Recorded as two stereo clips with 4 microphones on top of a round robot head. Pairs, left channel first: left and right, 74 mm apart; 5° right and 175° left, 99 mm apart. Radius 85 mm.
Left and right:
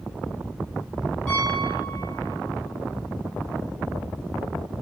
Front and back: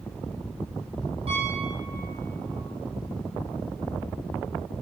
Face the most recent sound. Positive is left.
turn(degrees=165)